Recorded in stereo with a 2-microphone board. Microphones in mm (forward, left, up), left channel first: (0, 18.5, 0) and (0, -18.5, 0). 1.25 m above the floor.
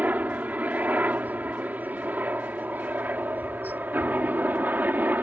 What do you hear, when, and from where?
0.0 s a helicopter: 55° right (ahead or behind); by 5.2 s 60° right (ahead or behind)